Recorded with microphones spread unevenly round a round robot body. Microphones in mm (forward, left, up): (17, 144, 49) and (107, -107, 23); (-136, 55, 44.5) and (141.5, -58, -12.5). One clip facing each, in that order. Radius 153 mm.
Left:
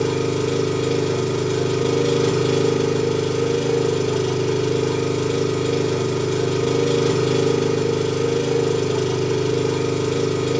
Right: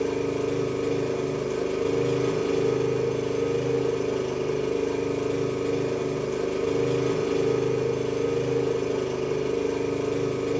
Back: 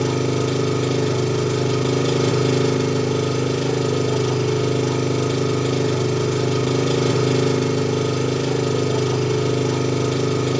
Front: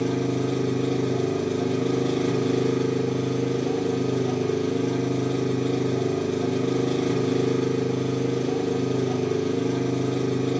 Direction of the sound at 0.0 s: 155° left.